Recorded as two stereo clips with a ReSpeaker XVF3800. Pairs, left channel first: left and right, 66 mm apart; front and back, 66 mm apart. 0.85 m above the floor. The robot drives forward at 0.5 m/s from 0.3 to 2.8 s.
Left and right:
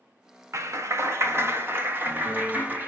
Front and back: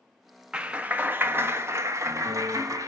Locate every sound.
0.5 s a clap: 105° right, 1.0 m; by 2.9 s 150° right, 1.7 m